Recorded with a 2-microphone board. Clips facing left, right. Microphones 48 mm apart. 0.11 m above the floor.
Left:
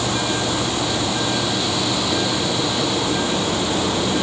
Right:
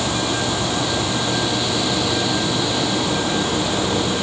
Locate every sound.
Only background noise.